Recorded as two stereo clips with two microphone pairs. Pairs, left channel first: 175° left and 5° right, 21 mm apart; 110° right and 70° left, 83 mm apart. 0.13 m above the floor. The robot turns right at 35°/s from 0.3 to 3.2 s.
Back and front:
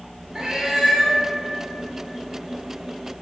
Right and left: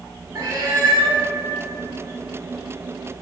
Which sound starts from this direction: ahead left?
A cat meowing, at 0.3 s.